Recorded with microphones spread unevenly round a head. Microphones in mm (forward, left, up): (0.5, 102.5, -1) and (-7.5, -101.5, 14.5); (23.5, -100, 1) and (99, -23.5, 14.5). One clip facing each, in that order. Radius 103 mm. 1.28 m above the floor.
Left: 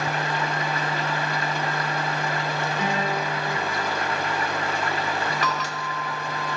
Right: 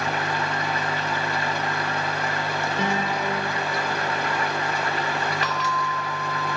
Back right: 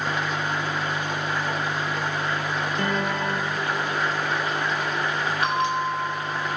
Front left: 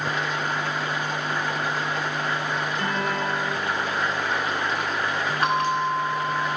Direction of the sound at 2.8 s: 115° right.